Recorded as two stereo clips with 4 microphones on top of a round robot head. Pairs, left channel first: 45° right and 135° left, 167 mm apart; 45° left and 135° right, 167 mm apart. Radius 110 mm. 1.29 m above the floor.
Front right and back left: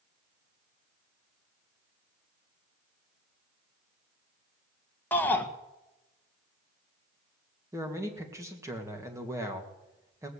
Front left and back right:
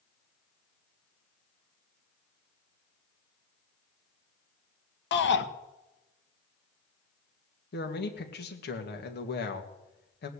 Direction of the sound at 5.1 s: 35° left.